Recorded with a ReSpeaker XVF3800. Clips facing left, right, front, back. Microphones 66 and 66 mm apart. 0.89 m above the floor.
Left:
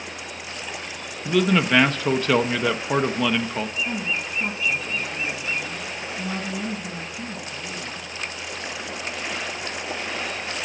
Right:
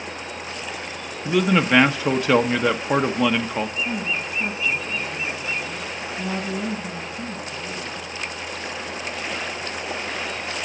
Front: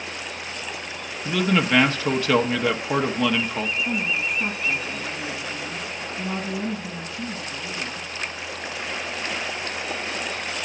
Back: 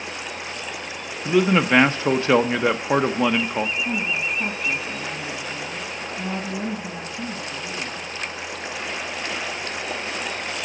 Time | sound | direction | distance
1.2 | a man speaking | 155° right | 0.6 m
3.8 | a woman speaking | 155° right | 6 m